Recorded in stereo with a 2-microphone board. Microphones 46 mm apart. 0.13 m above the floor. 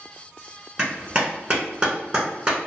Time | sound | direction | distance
0.8 | a clap | 20° right (ahead or behind) | 1.0 m